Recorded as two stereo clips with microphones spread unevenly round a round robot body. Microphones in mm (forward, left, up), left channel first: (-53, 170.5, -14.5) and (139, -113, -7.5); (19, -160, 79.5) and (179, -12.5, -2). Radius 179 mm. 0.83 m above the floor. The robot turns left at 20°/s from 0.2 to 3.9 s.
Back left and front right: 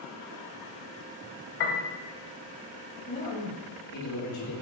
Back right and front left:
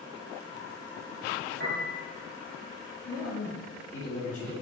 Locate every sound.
1.6 s a piano: 115° left, 1.1 m; by 1.9 s 110° left, 1.1 m
3.1 s a man speaking: 175° right, 2.5 m; by 4.5 s 165° left, 2.5 m